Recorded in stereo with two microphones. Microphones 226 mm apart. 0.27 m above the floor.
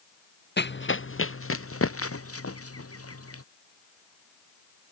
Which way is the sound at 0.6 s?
50° left (ahead or behind).